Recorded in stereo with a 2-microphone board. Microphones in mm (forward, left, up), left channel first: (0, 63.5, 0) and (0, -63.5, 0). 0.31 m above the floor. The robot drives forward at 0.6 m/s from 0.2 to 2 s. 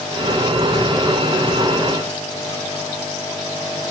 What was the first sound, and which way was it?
Only background noise.